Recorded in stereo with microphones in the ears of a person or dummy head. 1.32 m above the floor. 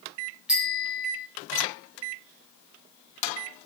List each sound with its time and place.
0.5 s a bicycle bell: 5° right (ahead or behind), 3 m